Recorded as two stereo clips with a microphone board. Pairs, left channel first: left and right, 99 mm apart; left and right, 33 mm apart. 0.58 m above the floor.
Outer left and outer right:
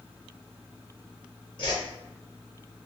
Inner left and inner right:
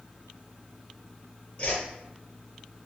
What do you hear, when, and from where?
1.6 s a whoosh: 50° left (ahead or behind), 2.5 m